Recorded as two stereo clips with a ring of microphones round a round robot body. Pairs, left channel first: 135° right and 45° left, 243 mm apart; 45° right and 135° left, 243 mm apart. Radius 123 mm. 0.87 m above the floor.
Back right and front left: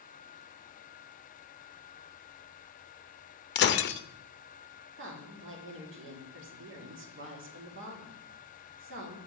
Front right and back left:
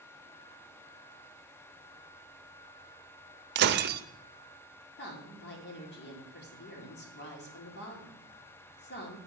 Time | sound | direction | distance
3.5 | breaking glass | straight behind | 0.5 m
5.0 | a woman speaking | 5° left | 2 m